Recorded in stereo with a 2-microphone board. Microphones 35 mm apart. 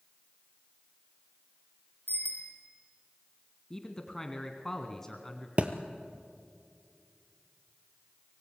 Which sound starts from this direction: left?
A bicycle bell, at 2.1 s.